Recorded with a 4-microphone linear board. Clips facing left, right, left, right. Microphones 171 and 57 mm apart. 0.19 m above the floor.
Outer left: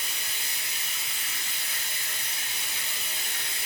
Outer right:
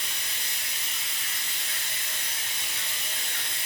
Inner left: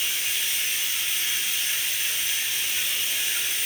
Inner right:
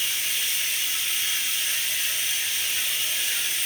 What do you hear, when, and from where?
0.0 s running water: 5° left (ahead or behind), 0.8 m